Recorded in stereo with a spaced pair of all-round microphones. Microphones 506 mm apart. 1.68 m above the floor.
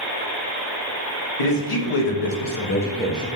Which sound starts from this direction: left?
A man speaking, at 1.4 s.